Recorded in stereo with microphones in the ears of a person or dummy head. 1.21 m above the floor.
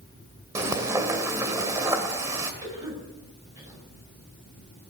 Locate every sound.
0.6 s frying: 15° right (ahead or behind), 1.8 m
2.6 s a cough: 20° right (ahead or behind), 8.5 m